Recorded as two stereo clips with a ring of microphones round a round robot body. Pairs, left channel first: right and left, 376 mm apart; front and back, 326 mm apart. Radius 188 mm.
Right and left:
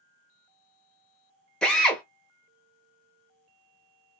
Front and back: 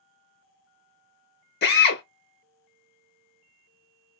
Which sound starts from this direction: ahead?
A drill, at 1.6 s.